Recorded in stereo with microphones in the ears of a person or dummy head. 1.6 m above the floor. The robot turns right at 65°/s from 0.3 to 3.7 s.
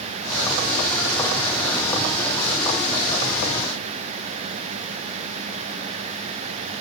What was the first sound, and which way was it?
Only background noise.